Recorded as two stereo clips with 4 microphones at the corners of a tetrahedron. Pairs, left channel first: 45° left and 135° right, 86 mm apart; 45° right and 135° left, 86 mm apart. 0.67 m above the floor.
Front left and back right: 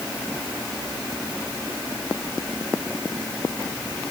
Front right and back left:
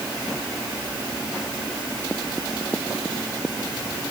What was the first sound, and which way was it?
Only background noise.